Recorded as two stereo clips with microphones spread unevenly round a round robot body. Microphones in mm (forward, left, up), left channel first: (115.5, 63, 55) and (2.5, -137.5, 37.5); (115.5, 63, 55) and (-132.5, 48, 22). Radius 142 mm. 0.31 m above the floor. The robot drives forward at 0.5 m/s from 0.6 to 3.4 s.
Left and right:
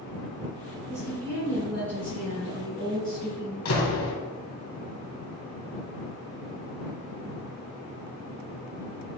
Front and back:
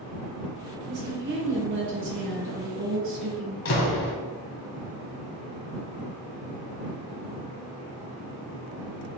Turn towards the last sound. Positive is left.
turn(degrees=40)